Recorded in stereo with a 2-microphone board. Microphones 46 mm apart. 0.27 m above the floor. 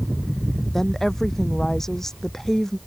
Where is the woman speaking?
10° left (ahead or behind).